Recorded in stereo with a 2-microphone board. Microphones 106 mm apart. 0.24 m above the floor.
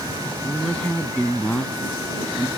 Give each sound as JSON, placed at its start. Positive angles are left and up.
{"t": 0.4, "sound": "a woman speaking", "side_deg": 10}